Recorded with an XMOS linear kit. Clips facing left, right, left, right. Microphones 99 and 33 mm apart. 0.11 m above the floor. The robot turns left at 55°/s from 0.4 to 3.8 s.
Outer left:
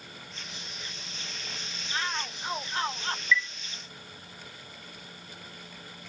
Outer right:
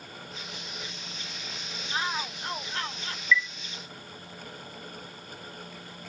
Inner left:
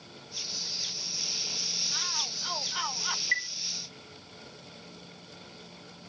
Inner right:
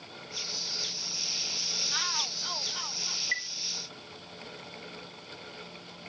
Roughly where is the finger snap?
No finger snap in this recording.